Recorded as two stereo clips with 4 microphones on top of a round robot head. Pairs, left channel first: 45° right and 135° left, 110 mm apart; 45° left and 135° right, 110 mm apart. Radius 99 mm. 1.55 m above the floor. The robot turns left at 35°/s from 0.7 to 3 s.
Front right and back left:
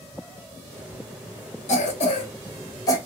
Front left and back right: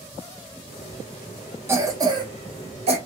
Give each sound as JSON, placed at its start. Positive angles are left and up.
{"t": 1.7, "sound": "a cough", "azimuth_deg": -65, "distance_m": 1.1}